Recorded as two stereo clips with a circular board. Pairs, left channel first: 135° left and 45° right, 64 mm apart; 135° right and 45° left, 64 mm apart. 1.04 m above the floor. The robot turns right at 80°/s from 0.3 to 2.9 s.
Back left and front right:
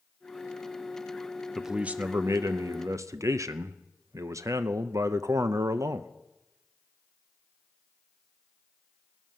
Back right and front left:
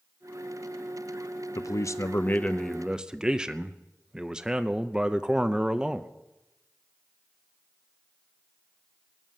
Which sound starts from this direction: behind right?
A man speaking, at 1.6 s.